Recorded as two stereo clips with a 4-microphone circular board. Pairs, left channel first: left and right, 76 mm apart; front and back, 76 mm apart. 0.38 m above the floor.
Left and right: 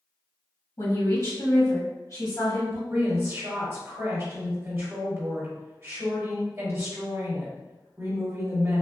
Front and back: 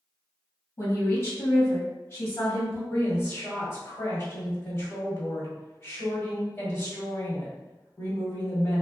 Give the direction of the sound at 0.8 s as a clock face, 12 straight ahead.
10 o'clock.